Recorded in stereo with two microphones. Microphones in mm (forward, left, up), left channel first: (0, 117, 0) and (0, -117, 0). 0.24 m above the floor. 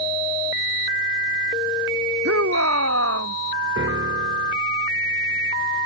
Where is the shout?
85° right.